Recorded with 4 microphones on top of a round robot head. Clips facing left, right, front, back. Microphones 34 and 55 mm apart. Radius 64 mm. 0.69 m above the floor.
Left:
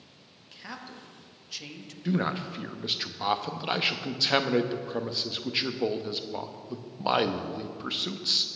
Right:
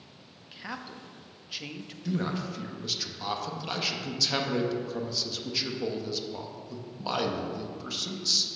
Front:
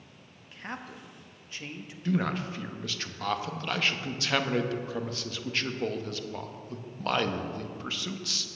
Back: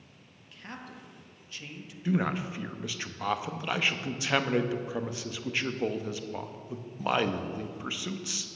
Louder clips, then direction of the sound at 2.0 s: Left 3 dB, even; 115° left.